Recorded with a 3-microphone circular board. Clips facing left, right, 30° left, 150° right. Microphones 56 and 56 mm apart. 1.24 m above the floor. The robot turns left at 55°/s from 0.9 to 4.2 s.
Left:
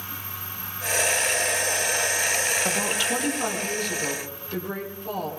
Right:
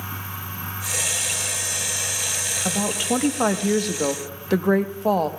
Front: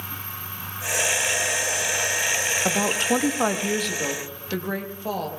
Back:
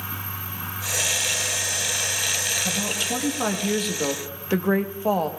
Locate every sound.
2.6 s a woman speaking: straight ahead, 1.0 m; by 5.3 s 85° right, 1.0 m